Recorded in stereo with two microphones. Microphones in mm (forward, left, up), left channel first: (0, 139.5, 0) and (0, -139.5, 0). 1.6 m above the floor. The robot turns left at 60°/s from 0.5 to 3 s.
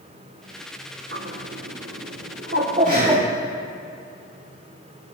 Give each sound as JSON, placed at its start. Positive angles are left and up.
{"t": 1.1, "sound": "a bird", "side_deg": -45, "distance_m": 1.0}
{"t": 2.9, "sound": "breathing", "side_deg": -30, "distance_m": 3.0}